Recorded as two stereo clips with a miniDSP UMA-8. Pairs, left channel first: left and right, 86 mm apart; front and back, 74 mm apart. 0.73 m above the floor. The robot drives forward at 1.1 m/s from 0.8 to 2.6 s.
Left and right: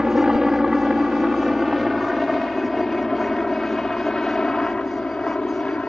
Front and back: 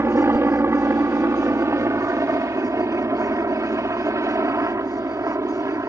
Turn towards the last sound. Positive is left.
turn(degrees=165)